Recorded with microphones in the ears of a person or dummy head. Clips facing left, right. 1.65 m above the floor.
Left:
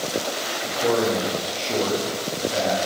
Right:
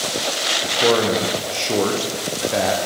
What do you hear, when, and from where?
0.6 s a man speaking: 70° right (ahead or behind), 0.8 m